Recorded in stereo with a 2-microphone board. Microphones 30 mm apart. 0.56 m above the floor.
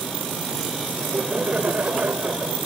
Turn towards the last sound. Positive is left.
turn(degrees=-55)  # may be behind; listen again after turning